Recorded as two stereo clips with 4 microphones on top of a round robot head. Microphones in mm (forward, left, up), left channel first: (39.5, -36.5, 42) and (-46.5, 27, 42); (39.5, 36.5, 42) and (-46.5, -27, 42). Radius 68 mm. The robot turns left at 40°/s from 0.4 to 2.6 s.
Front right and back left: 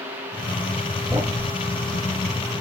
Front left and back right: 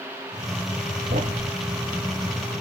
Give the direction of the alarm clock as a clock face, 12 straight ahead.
I don't hear an alarm clock.